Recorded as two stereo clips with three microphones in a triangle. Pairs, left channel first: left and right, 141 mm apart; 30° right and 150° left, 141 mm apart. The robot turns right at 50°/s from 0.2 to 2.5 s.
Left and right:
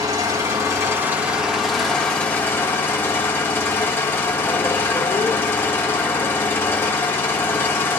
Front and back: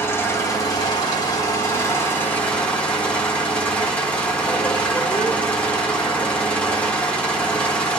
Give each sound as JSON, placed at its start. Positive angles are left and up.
{"t": 0.0, "sound": "an engine running", "azimuth_deg": -75, "distance_m": 1.4}